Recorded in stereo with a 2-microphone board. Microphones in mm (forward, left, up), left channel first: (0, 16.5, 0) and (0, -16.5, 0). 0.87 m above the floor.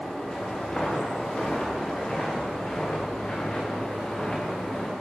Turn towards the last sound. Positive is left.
turn(degrees=20)  # may be behind; listen again after turning